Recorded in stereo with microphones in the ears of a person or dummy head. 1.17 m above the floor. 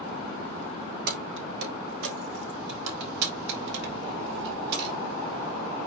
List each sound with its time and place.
1.1 s keys jangling: 55° right (ahead or behind), 1.4 m; by 4.9 s 65° right (ahead or behind), 4.5 m